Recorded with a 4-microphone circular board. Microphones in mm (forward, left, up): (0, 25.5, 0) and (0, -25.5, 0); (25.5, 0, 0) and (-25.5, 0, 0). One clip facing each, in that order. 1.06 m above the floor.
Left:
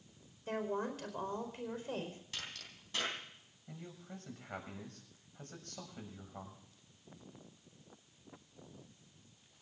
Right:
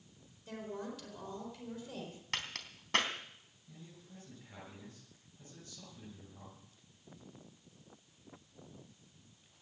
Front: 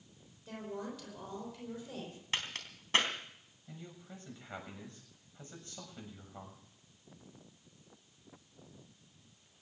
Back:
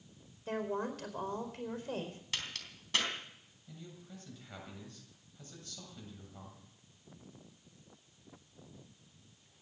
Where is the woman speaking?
140° left, 4.5 m.